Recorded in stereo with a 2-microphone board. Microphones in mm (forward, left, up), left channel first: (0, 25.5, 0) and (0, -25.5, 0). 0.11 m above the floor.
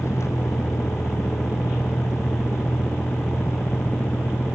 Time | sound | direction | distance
0.0 | a vehicle | 65° left (ahead or behind) | ?